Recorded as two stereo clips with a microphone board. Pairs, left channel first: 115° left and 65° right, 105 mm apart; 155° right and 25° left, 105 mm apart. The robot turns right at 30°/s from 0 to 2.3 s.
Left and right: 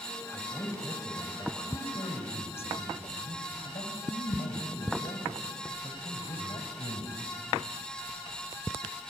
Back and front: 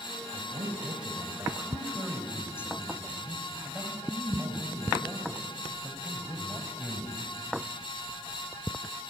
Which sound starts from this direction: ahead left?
A man speaking, at 0.3 s.